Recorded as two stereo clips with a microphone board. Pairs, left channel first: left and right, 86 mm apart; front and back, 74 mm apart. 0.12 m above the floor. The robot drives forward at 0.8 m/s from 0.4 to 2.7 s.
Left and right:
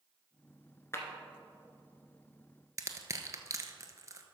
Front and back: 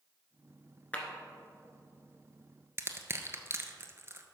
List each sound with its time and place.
0.9 s a clap: 60° left, 1.4 m; by 1.1 s 65° left, 1.4 m
2.8 s crushing: 135° right, 0.9 m